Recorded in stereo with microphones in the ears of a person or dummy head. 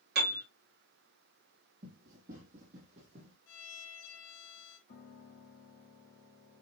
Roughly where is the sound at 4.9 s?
Left.